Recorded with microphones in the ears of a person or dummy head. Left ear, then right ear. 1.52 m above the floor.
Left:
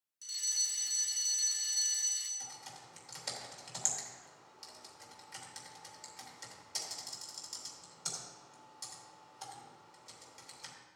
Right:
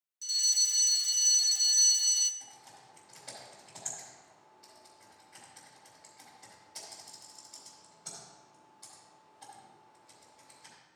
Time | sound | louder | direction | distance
0.2 | a fire alarm | right 7 dB | 15° right (ahead or behind) | 0.8 m
2.4 | typing on a keyboard | left 4 dB | 55° left (ahead or behind) | 3 m